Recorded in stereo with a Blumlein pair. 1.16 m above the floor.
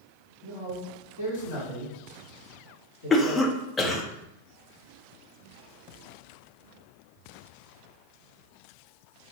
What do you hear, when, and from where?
0.4 s a man speaking: 65° left, 1.8 m
3.1 s a cough: 15° left, 0.6 m